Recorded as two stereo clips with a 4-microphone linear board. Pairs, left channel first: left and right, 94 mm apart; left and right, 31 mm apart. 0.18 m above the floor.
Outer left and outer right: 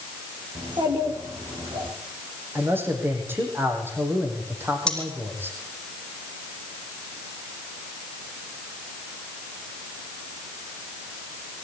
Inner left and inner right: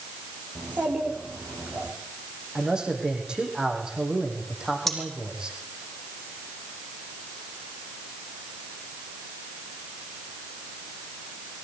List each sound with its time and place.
0.6 s a child speaking: 55° right (ahead or behind), 9 m
2.5 s a man speaking: 25° right (ahead or behind), 7 m
4.9 s cutlery clinking: 10° left (ahead or behind), 5.5 m